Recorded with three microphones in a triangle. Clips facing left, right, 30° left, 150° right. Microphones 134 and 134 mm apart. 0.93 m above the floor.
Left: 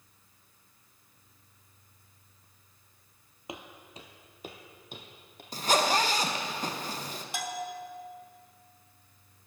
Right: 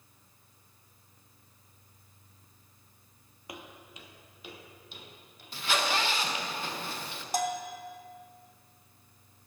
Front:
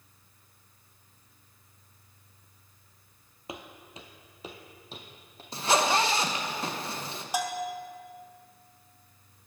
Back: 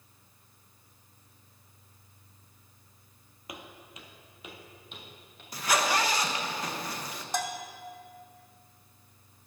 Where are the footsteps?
50° left, 1.0 m; by 5.4 s 80° left, 1.8 m.